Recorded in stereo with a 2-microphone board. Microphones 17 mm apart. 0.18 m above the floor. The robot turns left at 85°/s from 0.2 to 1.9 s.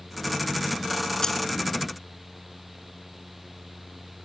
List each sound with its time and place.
1.2 s keys jangling: 40° left (ahead or behind), 1.8 m; by 1.4 s 25° left (ahead or behind), 1.8 m